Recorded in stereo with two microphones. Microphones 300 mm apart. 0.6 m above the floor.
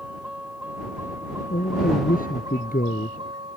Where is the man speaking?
25° left (ahead or behind).